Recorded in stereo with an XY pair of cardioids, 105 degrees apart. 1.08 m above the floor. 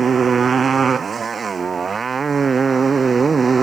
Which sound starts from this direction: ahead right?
A motorcycle, at 0.0 s.